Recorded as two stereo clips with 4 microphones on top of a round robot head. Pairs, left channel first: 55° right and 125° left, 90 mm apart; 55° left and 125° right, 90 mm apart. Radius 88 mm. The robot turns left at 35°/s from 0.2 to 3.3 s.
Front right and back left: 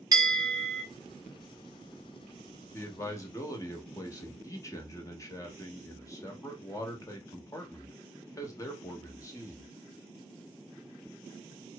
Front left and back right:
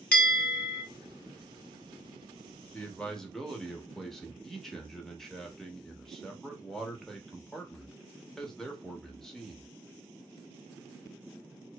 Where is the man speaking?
10° right, 1.0 m; by 9.7 s 30° right, 1.0 m.